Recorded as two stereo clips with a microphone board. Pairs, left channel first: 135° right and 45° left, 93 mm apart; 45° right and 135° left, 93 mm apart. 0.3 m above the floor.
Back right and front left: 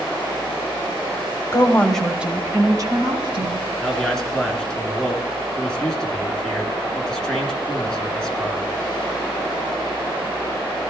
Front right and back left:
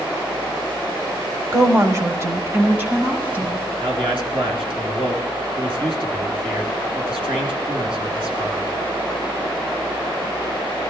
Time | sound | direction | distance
1.5 | a woman speaking | straight behind | 1.3 m
3.8 | a man speaking | 140° left | 3 m